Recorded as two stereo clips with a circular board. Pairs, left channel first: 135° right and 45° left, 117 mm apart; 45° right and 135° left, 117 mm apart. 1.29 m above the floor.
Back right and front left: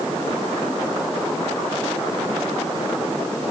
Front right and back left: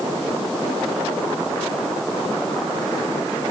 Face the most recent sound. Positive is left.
No sound to turn to.